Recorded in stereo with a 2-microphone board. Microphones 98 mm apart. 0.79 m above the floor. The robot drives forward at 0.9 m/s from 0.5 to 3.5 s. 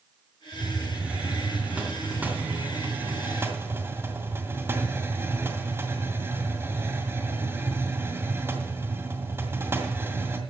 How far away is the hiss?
About 4.5 m.